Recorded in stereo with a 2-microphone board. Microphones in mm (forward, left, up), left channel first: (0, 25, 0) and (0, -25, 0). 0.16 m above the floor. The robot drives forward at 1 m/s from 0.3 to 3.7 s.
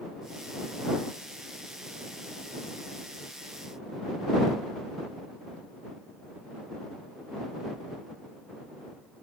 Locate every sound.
Only background noise.